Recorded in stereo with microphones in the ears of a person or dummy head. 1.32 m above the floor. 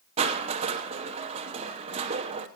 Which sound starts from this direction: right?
Crushing, at 0.2 s.